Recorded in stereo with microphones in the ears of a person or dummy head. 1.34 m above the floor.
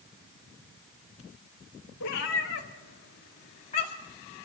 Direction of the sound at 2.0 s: 65° left (ahead or behind).